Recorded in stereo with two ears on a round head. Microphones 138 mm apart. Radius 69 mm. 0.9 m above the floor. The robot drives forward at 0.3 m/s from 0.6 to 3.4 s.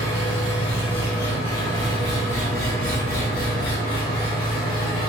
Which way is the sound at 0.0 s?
90° left.